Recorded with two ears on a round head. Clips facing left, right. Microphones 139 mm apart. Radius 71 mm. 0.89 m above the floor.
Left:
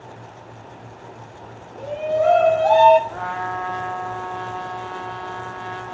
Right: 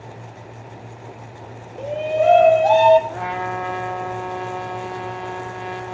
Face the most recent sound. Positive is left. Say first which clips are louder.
# right 1 dB
turn(degrees=-20)  # may be behind; listen again after turning